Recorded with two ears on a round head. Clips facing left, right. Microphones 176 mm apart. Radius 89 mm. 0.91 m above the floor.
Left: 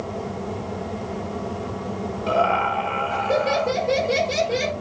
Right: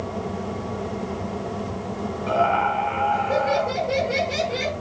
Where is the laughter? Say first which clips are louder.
Even; 45° left (ahead or behind), 3.5 m.